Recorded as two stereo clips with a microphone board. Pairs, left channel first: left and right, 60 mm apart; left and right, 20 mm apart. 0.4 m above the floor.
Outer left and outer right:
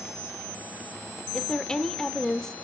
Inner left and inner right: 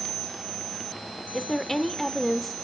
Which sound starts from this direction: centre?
A woman speaking, at 1.3 s.